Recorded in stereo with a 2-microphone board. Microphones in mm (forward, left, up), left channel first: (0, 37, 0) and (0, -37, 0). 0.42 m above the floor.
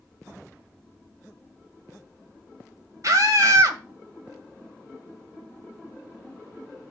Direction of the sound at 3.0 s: 55° right (ahead or behind).